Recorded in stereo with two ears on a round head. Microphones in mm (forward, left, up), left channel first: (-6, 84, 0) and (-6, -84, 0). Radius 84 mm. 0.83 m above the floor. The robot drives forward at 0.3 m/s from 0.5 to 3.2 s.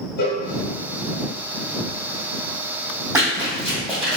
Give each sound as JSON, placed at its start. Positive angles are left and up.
{"t": 0.2, "sound": "a cowbell", "side_deg": 55, "distance_m": 0.7}
{"t": 3.1, "sound": "running footsteps", "side_deg": -10, "distance_m": 1.9}